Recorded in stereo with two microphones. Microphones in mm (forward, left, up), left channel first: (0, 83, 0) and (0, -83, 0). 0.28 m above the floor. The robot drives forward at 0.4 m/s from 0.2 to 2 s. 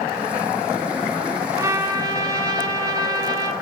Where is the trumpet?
20° right (ahead or behind), 2.5 m.